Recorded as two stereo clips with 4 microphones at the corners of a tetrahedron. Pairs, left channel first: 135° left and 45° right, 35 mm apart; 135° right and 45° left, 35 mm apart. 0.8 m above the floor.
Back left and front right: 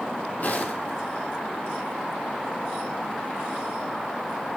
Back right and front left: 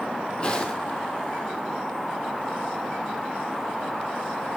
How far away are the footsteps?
About 1.6 m.